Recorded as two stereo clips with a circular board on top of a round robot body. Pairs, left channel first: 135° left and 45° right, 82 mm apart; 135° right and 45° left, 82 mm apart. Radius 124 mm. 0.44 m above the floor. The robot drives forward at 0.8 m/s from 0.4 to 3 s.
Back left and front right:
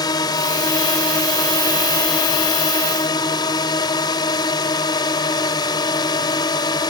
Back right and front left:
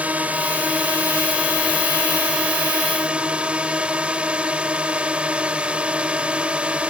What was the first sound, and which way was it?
A drone, 115° left.